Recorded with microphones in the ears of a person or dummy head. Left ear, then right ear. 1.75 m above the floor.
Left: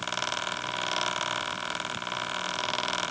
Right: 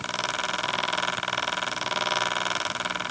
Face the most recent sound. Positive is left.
No sound to turn to.